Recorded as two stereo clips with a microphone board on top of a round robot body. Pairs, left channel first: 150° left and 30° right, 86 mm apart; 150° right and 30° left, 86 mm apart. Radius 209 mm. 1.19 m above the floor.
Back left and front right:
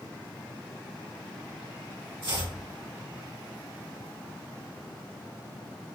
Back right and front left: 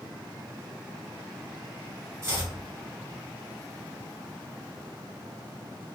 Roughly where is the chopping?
Ahead right.